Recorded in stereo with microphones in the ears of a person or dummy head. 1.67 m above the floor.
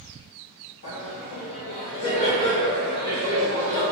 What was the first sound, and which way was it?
Laughter, 55° left (ahead or behind).